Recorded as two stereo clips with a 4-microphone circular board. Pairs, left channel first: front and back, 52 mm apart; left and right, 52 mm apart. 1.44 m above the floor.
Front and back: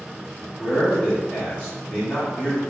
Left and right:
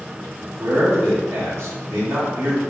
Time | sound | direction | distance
0.6 | a man speaking | 60° right | 1.5 m